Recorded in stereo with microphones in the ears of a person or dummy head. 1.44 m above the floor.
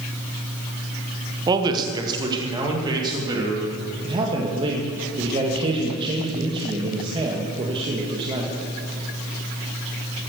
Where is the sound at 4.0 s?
30° right (ahead or behind), 1.6 m.